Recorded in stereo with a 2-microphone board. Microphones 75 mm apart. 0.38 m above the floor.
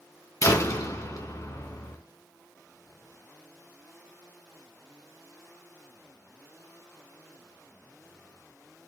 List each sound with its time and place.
0.4 s a door slam: 50° left (ahead or behind), 2.5 m